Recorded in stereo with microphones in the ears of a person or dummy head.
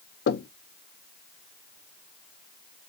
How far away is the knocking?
About 0.6 m.